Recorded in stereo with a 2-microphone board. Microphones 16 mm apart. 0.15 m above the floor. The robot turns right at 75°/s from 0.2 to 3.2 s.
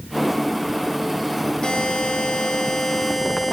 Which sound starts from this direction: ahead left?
A buzzer, at 1.6 s.